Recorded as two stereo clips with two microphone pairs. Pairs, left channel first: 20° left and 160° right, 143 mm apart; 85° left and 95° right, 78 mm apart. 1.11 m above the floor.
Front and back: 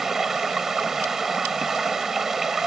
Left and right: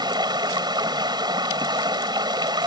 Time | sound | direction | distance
0.0 | running water | 75° right | ?